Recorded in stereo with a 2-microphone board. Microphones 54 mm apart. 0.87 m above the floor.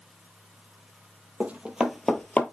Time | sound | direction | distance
1.4 | running footsteps | 30° right (ahead or behind) | 1.8 m